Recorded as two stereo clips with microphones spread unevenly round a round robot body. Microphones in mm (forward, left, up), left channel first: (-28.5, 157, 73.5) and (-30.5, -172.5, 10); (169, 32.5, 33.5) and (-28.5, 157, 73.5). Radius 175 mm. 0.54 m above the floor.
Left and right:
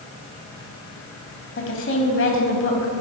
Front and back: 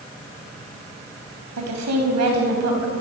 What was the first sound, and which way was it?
A woman speaking, 145° left.